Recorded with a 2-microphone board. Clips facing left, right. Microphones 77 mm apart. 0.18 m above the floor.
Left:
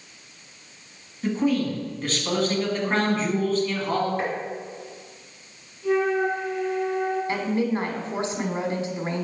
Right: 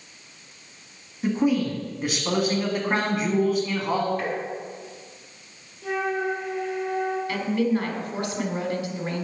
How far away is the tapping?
About 1.5 m.